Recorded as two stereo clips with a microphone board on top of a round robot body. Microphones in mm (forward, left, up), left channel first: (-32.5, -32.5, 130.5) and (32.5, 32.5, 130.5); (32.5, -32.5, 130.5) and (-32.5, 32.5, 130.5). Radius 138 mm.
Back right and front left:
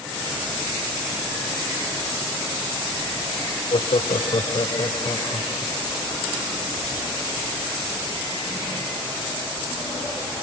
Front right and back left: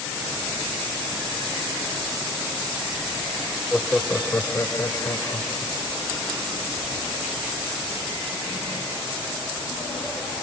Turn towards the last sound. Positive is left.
turn(degrees=-90)